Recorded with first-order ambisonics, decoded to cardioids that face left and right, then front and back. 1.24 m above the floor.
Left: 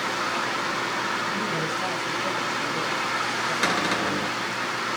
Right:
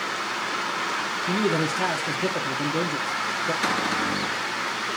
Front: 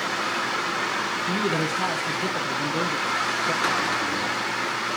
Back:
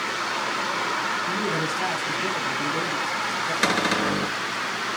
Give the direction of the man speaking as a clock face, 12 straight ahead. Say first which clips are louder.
Right 2 dB, front 1 dB; 3 o'clock.